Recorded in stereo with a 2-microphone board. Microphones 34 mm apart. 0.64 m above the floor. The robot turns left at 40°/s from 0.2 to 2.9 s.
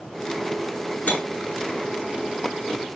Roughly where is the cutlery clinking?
Left.